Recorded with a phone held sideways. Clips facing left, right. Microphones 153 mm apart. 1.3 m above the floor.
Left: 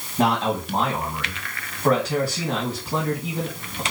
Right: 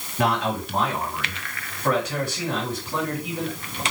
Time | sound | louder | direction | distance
0.2 | a man speaking | left 2 dB | 30° left (ahead or behind) | 2 m